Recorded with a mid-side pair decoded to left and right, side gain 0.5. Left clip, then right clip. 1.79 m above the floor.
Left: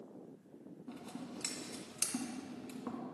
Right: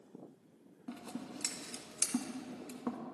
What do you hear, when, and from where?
0.9 s scissors: 35° right, 1.5 m